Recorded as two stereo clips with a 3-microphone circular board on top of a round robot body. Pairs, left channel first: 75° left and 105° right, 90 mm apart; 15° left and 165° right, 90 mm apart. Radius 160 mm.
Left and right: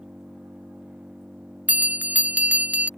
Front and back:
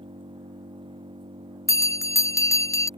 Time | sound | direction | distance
0.0 | an engine running | 175° left | ?
1.7 | a bell | 35° right | ?